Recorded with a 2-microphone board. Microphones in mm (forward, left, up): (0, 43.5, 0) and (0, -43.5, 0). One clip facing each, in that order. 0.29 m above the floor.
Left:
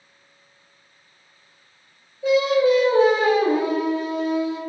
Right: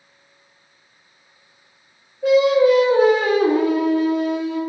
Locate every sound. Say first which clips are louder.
2.2 s singing: right 4 dB; 60° right (ahead or behind), 0.8 m